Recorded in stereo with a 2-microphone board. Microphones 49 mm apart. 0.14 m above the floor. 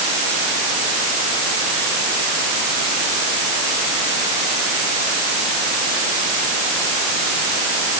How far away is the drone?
No drone in this recording.